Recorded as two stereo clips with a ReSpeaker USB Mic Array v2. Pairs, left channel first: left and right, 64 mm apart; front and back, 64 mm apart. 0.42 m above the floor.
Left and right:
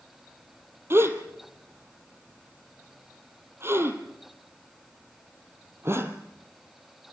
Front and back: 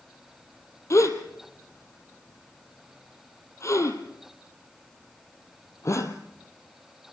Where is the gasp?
40° right, 2.5 m.